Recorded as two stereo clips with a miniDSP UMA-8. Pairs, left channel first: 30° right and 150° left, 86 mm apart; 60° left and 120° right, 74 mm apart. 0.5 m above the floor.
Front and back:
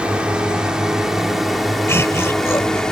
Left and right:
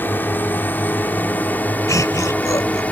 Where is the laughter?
25° left.